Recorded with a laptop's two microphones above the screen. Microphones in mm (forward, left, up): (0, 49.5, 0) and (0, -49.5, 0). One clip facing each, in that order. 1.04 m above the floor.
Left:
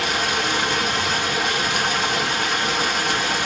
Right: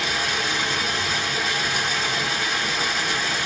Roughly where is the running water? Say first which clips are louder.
Left 3 dB; left.